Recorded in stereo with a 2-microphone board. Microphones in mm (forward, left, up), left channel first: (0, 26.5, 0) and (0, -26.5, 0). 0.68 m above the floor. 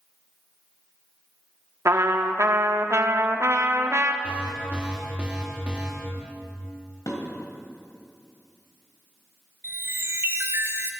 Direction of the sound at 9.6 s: 50° right (ahead or behind).